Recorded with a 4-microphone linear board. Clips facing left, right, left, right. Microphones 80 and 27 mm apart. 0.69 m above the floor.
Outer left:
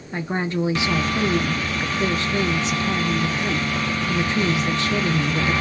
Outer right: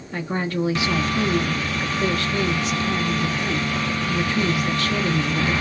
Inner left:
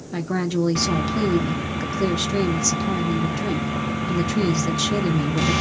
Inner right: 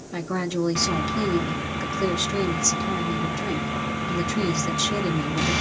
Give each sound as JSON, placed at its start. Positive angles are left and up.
{"t": 0.1, "sound": "a woman speaking", "side_deg": 20, "distance_m": 0.9}